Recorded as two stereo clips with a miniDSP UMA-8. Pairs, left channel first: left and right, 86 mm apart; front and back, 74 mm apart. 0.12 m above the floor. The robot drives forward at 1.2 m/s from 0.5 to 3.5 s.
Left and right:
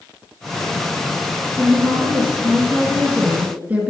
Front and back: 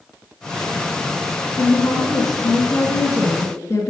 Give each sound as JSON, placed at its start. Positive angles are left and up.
{"t": 1.6, "sound": "a woman speaking", "azimuth_deg": -10, "distance_m": 3.5}